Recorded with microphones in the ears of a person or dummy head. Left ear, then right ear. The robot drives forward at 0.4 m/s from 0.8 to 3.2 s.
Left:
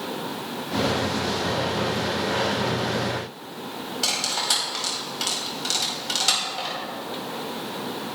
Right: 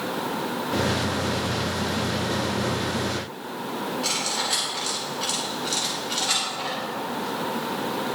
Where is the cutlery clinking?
80° left, 4.5 m.